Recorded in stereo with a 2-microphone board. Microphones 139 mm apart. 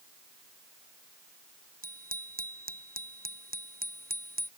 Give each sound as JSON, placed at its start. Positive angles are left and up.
{"t": 1.8, "sound": "a bicycle bell", "side_deg": -80}